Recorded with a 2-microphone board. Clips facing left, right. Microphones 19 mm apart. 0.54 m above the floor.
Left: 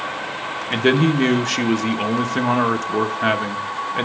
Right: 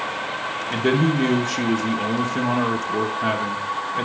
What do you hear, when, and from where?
0.7 s a man speaking: 35° left (ahead or behind), 0.9 m